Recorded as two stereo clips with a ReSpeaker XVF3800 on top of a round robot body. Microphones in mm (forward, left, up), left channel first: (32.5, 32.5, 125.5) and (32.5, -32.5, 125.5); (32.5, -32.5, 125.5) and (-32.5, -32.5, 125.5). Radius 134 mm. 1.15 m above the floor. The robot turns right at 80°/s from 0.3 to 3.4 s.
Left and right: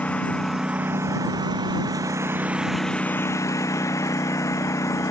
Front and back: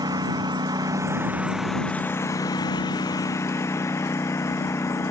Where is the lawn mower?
160° left; by 5.1 s 50° left.